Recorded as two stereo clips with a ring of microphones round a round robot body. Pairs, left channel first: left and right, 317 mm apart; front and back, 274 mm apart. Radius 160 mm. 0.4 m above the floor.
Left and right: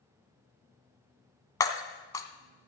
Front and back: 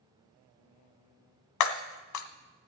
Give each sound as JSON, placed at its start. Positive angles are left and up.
{"t": 1.6, "sound": "breaking glass", "azimuth_deg": 10, "distance_m": 1.0}